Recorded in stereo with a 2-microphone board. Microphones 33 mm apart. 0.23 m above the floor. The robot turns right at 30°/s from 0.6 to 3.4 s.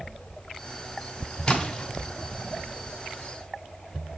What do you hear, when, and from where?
1.5 s a splash: 15° left (ahead or behind), 2 m; by 1.9 s 5° left (ahead or behind), 2 m